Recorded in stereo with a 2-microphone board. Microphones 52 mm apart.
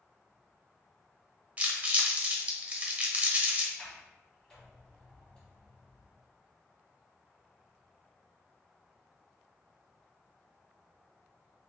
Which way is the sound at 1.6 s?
25° right (ahead or behind).